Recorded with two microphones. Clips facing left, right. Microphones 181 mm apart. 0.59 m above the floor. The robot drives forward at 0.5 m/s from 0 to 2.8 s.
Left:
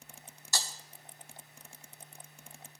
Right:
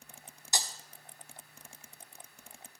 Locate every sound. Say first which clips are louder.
0.5 s breaking glass: right 1 dB; 20° right (ahead or behind), 0.7 m; by 0.7 s 15° right (ahead or behind), 0.8 m